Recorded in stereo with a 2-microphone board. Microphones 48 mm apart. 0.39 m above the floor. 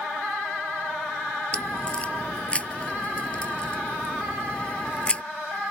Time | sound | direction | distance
1.5 | a crack | 25° left (ahead or behind) | ?